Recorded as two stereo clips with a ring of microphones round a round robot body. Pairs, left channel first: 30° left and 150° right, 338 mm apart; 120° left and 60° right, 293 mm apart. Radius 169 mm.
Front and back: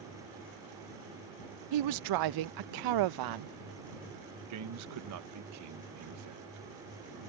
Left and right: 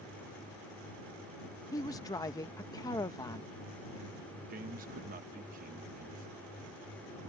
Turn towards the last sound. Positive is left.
turn(degrees=-120)